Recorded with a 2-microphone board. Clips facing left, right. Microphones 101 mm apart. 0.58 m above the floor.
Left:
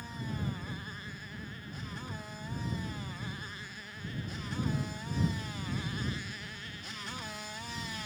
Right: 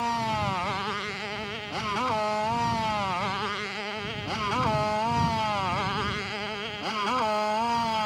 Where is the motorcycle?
85° right; by 8.1 s 65° right (ahead or behind).